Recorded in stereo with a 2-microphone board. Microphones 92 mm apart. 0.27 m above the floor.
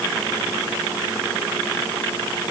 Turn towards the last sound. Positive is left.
No sound to turn to.